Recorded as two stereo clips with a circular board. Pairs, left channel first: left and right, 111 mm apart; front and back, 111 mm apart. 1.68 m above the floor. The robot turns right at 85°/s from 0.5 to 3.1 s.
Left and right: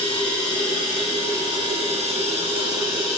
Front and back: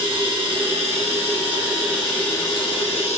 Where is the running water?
135° left, 0.7 m; by 3.2 s 5° right, 0.7 m.